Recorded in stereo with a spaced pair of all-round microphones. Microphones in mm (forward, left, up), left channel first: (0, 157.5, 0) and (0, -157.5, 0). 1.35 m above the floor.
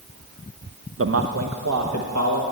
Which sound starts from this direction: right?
A man speaking, at 1.0 s.